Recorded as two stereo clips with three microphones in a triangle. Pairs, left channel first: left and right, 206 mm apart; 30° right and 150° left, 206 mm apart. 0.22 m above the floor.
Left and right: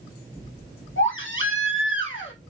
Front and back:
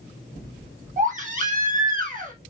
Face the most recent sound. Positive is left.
turn(degrees=100)